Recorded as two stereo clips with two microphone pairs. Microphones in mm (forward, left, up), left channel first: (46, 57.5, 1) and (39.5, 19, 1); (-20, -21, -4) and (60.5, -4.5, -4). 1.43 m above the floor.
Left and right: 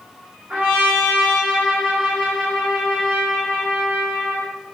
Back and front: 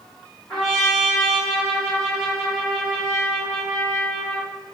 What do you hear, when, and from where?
0.5 s a trumpet: 90° right, 1.5 m